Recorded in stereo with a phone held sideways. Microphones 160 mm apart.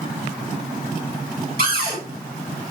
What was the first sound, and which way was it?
A cupboard door, 70° right (ahead or behind).